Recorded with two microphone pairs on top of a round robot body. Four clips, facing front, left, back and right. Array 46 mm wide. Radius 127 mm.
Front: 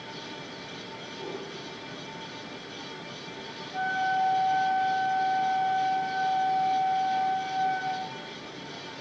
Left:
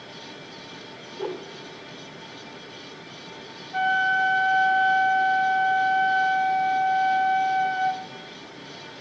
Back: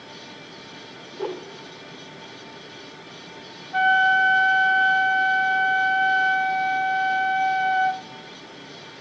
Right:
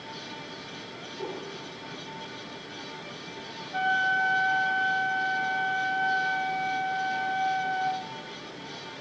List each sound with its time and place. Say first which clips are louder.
1.1 s a whoosh: left 5 dB, back 8 dB; 150° left, 2 m
3.7 s a flute: left 3 dB, back 10 dB; 175° left, 0.8 m